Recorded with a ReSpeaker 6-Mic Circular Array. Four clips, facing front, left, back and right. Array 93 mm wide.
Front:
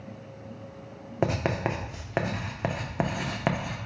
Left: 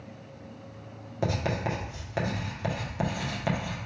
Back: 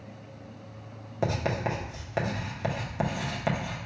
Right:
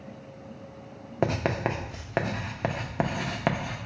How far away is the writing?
About 0.6 m.